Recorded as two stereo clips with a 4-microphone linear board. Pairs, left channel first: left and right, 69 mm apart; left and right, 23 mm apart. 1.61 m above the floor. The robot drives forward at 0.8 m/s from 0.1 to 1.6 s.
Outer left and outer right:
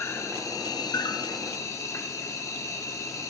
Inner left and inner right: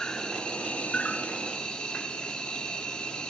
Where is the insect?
40° left (ahead or behind), 0.9 m; by 3.3 s 50° left (ahead or behind), 0.8 m.